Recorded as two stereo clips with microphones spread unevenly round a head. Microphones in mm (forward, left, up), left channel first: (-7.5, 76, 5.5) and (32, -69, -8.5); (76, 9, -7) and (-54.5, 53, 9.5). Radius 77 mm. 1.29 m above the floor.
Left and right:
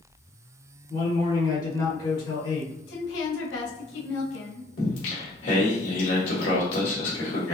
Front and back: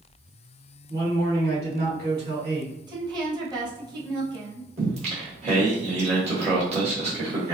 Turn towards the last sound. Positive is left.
turn(degrees=120)